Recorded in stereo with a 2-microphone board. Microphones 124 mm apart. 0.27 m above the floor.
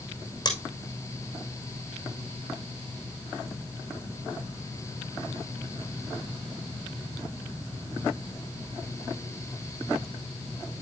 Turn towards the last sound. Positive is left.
turn(degrees=40)  # may be behind; listen again after turning